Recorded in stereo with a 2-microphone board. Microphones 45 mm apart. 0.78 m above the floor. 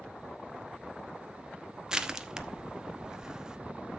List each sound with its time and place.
1.9 s crushing: 15° right (ahead or behind), 0.9 m